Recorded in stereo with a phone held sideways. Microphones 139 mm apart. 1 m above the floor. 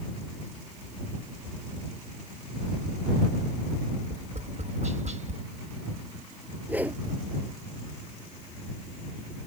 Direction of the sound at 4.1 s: 60° right (ahead or behind).